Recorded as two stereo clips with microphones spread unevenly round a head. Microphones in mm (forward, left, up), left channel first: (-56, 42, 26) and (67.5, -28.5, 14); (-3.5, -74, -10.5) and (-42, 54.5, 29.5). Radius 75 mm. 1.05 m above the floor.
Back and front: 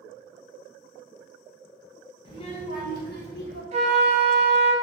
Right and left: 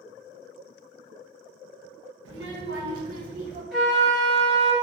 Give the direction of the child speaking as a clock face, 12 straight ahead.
9 o'clock.